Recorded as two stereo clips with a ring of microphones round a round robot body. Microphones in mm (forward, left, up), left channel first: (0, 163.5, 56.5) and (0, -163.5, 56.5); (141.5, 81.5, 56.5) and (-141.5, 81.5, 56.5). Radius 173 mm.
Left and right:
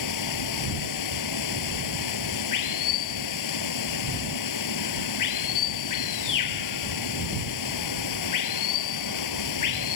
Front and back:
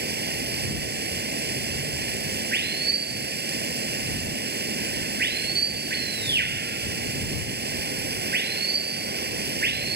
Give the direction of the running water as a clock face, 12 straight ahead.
8 o'clock.